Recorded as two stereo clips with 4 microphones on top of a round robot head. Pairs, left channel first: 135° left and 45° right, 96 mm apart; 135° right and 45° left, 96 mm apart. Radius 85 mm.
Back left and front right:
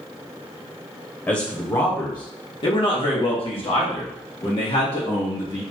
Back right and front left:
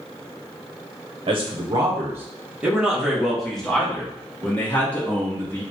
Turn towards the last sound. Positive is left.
turn(degrees=155)